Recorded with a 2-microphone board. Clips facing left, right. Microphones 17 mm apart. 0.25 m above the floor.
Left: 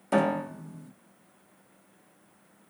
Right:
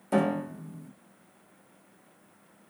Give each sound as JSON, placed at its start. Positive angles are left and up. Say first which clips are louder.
{"t": 0.1, "sound": "a piano", "louder": "left 1 dB", "side_deg": 25, "distance_m": 0.6}